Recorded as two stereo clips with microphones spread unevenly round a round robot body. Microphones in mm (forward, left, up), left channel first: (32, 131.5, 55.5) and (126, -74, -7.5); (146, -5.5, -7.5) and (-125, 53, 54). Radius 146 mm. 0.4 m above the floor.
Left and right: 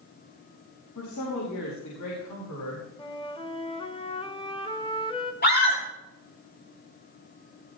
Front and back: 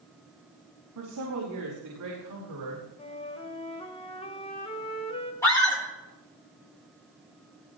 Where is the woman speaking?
140° left, 5 m; by 2.9 s 145° left, 6.5 m.